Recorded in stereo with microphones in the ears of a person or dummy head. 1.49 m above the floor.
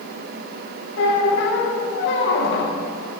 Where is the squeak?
65° left (ahead or behind), 0.9 m.